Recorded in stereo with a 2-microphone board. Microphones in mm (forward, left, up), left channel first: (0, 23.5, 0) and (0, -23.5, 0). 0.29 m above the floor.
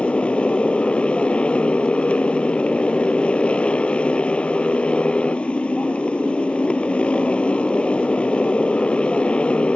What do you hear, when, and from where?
0.0 s a motorcycle: 25° left (ahead or behind)